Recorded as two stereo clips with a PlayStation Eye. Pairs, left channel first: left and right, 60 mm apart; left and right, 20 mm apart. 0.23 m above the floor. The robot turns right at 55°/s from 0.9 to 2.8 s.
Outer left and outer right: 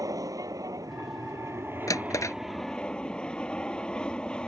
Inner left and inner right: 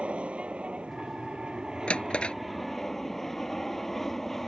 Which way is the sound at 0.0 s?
90° right.